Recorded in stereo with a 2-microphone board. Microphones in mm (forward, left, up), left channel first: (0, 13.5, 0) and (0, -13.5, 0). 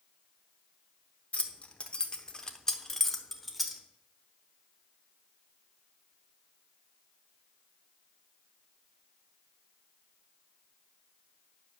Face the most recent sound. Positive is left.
turn(degrees=0)  # may be behind; listen again after turning